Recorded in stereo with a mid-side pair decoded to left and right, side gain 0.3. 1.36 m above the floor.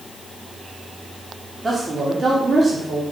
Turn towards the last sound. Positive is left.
turn(degrees=-35)